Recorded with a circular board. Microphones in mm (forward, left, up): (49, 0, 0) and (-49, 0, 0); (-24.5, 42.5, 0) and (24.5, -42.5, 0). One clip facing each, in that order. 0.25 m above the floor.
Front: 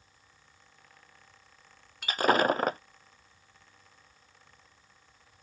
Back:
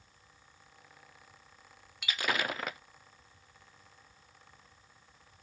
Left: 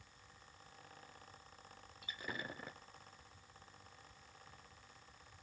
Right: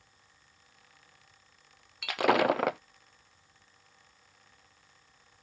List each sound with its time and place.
2.0 s breaking glass: 50° right